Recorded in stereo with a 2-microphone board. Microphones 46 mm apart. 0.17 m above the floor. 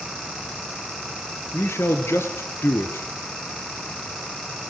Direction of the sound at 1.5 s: 65° left (ahead or behind).